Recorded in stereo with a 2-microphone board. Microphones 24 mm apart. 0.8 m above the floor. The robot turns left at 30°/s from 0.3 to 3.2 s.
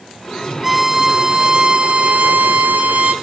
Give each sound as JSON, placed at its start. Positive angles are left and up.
{"t": 0.6, "sound": "a violin", "azimuth_deg": -15, "distance_m": 1.2}